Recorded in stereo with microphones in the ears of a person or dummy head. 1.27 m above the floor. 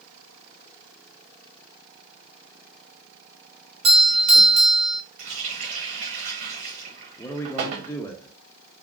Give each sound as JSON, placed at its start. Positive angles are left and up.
{"t": 3.8, "sound": "a doorbell", "side_deg": -25, "distance_m": 0.7}
{"t": 5.2, "sound": "a running tap", "side_deg": -50, "distance_m": 0.9}
{"t": 7.2, "sound": "a man speaking", "side_deg": 10, "distance_m": 0.6}